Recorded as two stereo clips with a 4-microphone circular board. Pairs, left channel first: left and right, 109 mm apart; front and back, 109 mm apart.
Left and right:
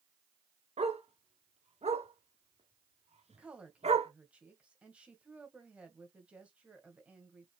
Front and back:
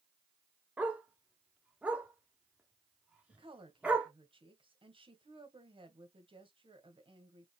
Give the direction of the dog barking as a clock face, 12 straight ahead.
3 o'clock.